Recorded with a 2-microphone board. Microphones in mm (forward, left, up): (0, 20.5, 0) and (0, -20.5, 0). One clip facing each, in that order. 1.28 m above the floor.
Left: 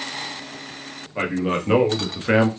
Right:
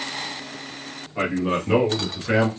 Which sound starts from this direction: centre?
A man speaking, at 1.1 s.